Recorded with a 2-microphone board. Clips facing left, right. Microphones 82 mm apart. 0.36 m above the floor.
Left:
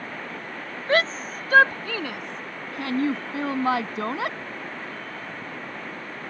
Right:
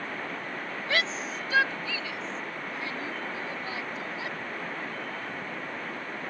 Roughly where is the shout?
Left.